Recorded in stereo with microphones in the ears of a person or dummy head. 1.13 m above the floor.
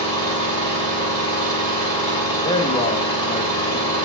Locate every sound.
0.0 s an engine running: 30° left (ahead or behind), 3 m
2.4 s a man speaking: 30° left (ahead or behind), 1.4 m